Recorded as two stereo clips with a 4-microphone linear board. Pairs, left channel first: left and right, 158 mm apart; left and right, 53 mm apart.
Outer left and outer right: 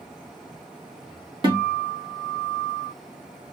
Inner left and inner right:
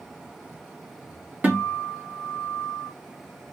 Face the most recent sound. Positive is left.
turn(degrees=-30)  # may be behind; listen again after turning